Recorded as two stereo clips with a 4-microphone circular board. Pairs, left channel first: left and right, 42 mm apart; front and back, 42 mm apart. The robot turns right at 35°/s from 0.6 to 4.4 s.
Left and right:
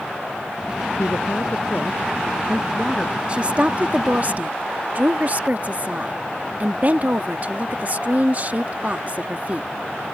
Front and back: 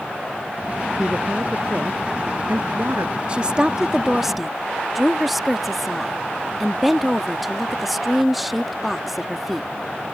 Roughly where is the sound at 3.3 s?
Behind right.